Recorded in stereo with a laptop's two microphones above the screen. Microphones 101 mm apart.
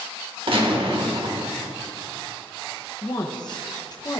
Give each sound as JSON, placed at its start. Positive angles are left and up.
{"t": 0.5, "sound": "a gunshot", "side_deg": -65, "distance_m": 1.7}
{"t": 3.0, "sound": "a woman speaking", "side_deg": 45, "distance_m": 0.7}